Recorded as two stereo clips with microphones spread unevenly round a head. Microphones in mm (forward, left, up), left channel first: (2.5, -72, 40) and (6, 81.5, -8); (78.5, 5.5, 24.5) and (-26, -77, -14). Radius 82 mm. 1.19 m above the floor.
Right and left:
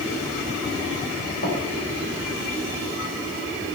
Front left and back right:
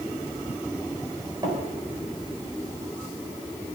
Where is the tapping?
80° right, 4 m.